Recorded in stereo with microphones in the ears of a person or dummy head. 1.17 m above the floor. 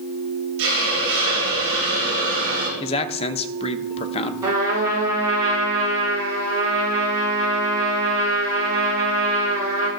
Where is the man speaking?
25° left (ahead or behind), 0.7 m.